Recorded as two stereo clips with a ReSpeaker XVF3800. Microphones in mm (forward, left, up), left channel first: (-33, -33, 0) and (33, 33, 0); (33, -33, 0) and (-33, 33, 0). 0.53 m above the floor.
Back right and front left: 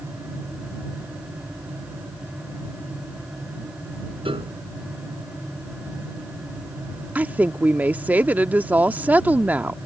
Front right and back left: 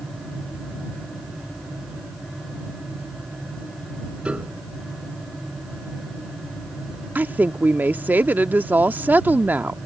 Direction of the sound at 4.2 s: 60° left.